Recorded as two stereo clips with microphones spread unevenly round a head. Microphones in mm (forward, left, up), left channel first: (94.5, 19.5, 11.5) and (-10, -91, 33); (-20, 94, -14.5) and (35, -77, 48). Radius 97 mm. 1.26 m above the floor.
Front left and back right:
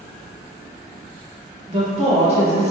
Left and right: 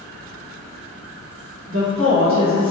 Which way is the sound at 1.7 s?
85° right.